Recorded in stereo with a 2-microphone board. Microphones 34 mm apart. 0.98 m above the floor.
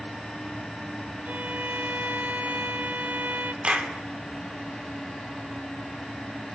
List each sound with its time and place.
1.2 s a violin: 45° right (ahead or behind), 1.2 m
3.6 s a clap: 30° right (ahead or behind), 3 m